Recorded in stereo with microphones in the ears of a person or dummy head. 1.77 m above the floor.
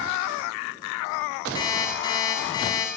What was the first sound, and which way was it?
An alarm clock, 25° left (ahead or behind).